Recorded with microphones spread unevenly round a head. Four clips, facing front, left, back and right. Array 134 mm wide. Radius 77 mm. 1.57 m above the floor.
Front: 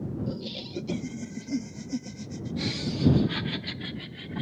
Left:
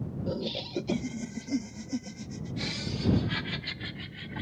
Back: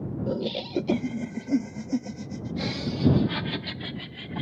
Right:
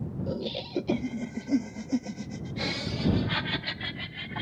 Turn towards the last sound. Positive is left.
turn(degrees=-130)